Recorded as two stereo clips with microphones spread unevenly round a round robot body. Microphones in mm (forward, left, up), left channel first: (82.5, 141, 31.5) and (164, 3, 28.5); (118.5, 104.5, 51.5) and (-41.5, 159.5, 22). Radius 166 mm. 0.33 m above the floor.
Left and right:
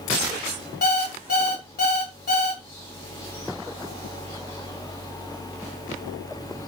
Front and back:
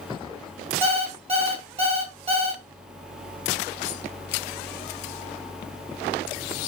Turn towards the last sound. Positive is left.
turn(degrees=115)